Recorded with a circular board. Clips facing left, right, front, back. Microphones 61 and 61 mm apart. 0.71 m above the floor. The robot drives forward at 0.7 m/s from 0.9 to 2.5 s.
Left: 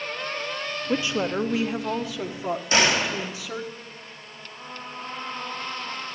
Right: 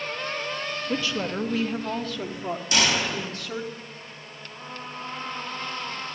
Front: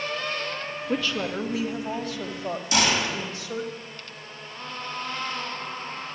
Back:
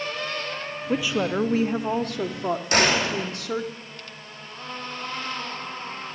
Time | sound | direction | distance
0.9 | a woman speaking | 100° left | 0.6 m
2.7 | a gunshot | 145° left | 2.5 m